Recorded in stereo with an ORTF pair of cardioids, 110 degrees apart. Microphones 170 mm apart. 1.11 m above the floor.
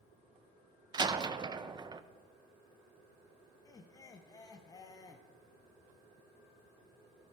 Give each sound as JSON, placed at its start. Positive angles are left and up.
{"t": 0.9, "sound": "a door slam", "azimuth_deg": -25, "distance_m": 0.5}
{"t": 3.6, "sound": "laughter", "azimuth_deg": 20, "distance_m": 0.7}